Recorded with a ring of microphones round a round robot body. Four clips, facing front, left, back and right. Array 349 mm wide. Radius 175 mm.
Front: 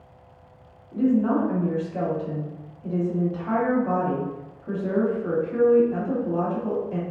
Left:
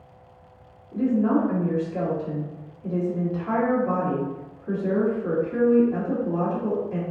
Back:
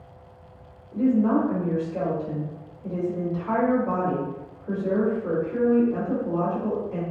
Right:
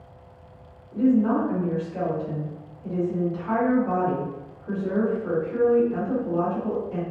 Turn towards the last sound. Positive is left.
turn(degrees=35)